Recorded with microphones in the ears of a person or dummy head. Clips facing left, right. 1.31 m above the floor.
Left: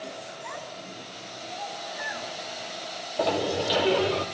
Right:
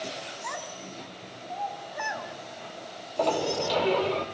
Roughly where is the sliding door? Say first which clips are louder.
Left 1 dB; centre.